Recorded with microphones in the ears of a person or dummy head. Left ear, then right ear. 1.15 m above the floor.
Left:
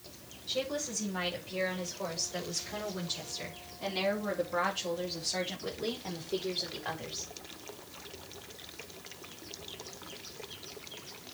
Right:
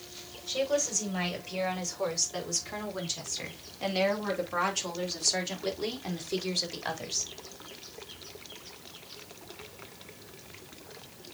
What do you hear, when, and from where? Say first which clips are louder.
0.5 s a woman speaking: right 6 dB; 35° right (ahead or behind), 5.5 m; by 7.3 s 75° right (ahead or behind), 3.5 m